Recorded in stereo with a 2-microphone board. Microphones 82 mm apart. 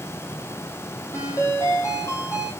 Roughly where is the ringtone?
Left.